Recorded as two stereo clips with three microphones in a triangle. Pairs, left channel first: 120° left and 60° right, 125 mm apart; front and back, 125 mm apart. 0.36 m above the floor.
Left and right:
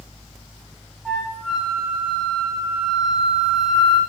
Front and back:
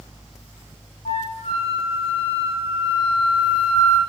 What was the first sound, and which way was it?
A flute, 30° left.